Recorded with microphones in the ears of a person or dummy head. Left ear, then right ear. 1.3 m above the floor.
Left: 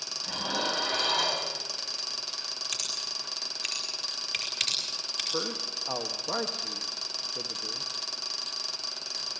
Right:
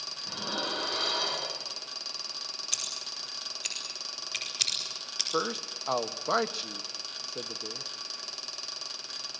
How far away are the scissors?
About 4.5 m.